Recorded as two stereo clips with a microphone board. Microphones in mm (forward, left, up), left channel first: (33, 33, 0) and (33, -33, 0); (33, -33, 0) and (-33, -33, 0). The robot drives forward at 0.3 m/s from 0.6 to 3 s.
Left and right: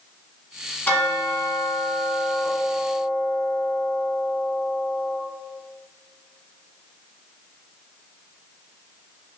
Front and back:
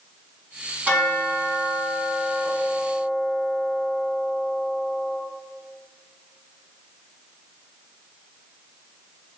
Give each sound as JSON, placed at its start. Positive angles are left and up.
{"t": 0.9, "sound": "a bell", "azimuth_deg": 135, "distance_m": 1.2}